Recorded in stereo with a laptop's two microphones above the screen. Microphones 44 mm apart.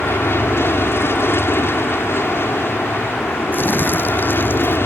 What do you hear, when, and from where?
0.0 s an aircraft: 60° left (ahead or behind)
3.5 s crumpling: 45° left (ahead or behind)